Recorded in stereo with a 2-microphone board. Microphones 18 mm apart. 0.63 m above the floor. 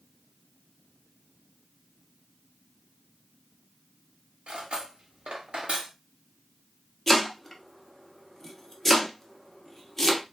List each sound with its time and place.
4.5 s cutlery clinking: 75° right (ahead or behind), 0.9 m
7.1 s chopping: 20° left (ahead or behind), 0.7 m